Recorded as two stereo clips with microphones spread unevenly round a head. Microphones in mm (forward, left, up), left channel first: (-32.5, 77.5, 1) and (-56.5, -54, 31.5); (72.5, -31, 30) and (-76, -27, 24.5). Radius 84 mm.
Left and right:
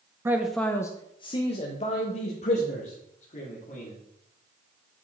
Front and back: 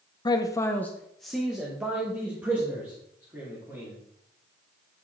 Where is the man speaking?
20° right, 0.6 m; by 3.9 s 105° left, 2.5 m.